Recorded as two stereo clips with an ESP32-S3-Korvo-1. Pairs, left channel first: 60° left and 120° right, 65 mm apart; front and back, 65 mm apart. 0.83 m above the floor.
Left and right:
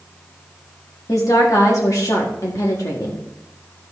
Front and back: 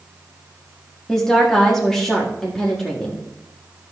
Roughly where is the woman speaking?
Left.